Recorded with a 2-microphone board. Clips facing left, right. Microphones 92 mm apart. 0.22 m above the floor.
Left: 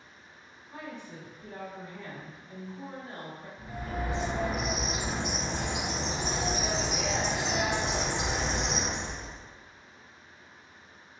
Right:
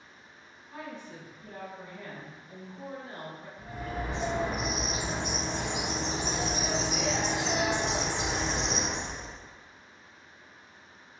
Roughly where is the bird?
Centre.